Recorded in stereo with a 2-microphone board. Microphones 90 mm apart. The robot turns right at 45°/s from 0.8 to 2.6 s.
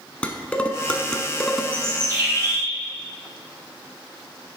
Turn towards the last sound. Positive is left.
turn(degrees=-95)